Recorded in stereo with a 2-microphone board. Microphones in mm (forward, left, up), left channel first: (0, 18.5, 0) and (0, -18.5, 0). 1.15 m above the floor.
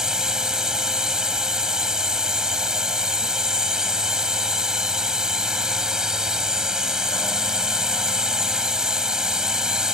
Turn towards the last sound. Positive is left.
turn(degrees=-15)  # may be behind; listen again after turning